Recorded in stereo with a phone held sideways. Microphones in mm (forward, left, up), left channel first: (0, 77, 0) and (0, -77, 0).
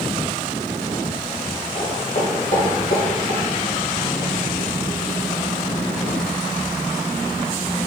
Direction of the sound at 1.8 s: 55° left (ahead or behind).